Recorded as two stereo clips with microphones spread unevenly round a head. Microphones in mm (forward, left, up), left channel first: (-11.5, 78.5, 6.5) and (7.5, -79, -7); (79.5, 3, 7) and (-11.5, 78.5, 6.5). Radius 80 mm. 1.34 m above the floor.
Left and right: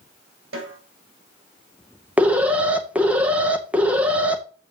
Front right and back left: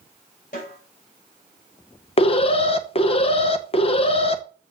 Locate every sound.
0.5 s a snare drum: 85° right, 3 m
2.2 s an alarm: straight ahead, 0.9 m